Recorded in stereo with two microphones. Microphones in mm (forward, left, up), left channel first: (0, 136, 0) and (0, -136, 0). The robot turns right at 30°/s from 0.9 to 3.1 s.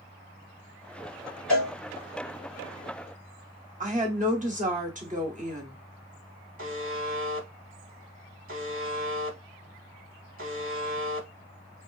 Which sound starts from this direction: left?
A cowbell, at 1.5 s.